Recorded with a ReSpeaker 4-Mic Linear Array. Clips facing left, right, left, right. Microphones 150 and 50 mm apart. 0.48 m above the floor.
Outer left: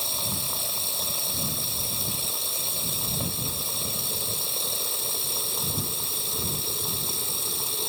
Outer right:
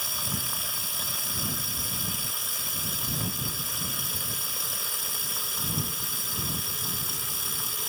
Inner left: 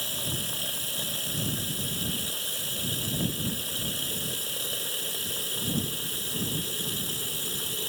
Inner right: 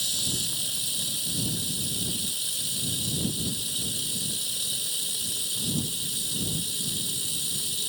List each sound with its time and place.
0.0 s running water: 30° left (ahead or behind)